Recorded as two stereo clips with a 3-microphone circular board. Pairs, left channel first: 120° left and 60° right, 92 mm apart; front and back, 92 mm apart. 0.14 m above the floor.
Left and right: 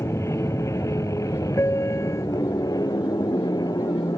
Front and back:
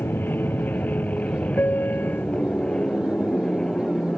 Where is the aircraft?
65° left; by 4.2 s 85° left.